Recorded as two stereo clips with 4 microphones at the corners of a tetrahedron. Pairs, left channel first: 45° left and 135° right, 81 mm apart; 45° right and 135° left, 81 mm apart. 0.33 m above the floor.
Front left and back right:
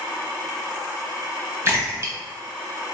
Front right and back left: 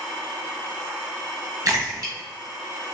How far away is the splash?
About 1.2 m.